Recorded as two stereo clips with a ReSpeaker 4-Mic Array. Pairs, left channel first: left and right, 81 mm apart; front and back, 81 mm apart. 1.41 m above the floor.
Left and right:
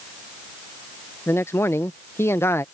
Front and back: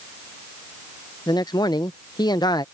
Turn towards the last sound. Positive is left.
turn(degrees=30)